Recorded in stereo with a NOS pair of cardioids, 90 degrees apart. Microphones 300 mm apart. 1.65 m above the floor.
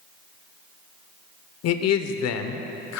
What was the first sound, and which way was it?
A man speaking, 65° left.